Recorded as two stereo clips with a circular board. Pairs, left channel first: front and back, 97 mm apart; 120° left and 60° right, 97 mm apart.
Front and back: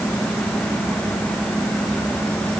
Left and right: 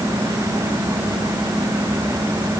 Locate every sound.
Only background noise.